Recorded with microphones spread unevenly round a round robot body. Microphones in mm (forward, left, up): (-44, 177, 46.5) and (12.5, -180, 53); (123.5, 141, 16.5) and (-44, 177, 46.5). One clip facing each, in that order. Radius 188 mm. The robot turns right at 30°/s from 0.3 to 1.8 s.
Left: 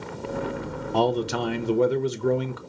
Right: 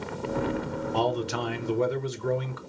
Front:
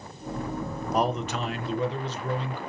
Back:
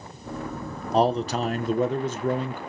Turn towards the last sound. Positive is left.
turn(degrees=125)